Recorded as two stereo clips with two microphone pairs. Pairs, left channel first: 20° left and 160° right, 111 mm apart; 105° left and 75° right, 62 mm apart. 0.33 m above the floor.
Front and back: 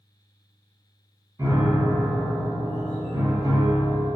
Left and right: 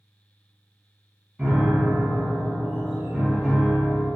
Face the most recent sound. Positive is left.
turn(degrees=-145)